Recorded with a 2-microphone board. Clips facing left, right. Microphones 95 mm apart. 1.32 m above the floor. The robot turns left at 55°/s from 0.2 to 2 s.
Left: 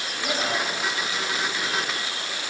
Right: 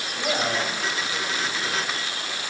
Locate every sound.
0.1 s a man speaking: 95° right, 3 m; by 1.8 s 175° left, 3 m